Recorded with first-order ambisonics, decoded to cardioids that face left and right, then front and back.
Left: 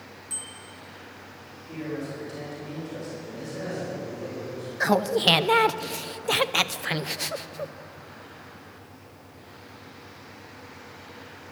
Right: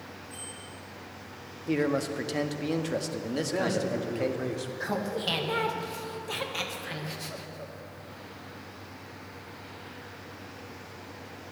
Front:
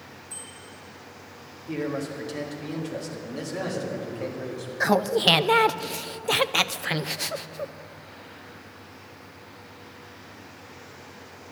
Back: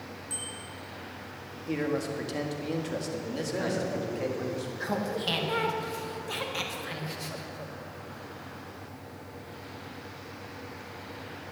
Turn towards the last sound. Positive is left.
turn(degrees=45)